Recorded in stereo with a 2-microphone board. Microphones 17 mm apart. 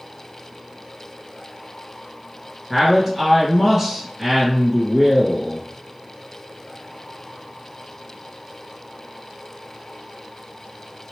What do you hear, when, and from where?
2.7 s a man speaking: 30° right (ahead or behind), 1.8 m